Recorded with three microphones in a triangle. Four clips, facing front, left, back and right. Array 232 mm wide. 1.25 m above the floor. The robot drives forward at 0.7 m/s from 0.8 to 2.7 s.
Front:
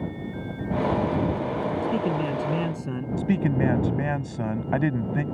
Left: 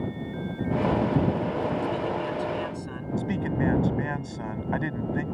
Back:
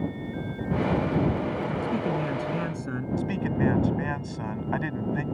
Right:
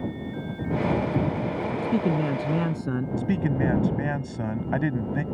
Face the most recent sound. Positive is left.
turn(degrees=-25)